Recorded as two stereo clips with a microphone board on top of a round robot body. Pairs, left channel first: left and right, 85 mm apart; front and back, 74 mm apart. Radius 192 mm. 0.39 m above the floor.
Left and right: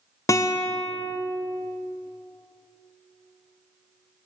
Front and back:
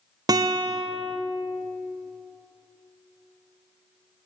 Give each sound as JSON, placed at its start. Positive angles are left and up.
{"t": 0.3, "sound": "a guitar", "azimuth_deg": 145, "distance_m": 0.6}